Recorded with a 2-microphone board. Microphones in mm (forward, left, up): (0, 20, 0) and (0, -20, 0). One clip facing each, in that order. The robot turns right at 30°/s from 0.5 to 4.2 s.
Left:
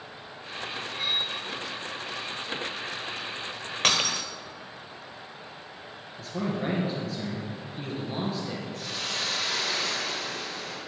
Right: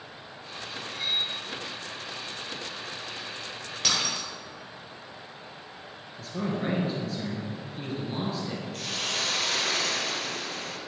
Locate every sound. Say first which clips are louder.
0.9 s cutlery clinking: even; 45° left (ahead or behind), 3.5 m; by 1.3 s 35° left (ahead or behind), 3.5 m
3.8 s breaking glass: left 3 dB; 45° left (ahead or behind), 1.1 m; by 4.3 s 55° left (ahead or behind), 1.1 m
6.2 s a man speaking: even; centre (ahead or behind), 1.9 m
8.7 s a hiss: right 3 dB; 70° right (ahead or behind), 2.5 m